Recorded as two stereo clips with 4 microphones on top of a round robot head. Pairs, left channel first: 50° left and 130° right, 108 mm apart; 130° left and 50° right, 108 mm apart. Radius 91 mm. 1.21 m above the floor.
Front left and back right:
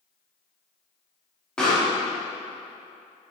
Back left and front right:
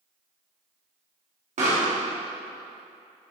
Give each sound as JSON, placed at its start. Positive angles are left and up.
{"t": 1.6, "sound": "a pop", "azimuth_deg": -35, "distance_m": 2.5}